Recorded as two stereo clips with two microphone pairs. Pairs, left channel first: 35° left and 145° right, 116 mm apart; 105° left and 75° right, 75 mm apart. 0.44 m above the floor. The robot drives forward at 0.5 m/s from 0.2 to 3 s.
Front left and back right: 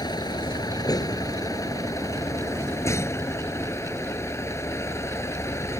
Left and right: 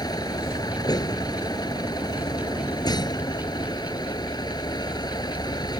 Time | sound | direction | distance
0.0 | a vehicle | 85° left | ?